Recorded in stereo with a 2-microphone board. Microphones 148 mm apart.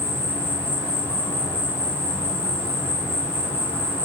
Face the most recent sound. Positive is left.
turn(degrees=15)  # may be behind; listen again after turning